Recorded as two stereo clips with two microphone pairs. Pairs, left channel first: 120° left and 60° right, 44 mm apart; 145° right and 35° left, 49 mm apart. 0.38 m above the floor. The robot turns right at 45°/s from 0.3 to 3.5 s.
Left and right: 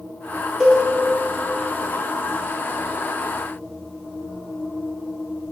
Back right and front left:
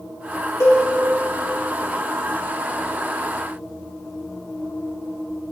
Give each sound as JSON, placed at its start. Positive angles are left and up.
{"t": 0.6, "sound": "a cowbell", "azimuth_deg": -140, "distance_m": 3.5}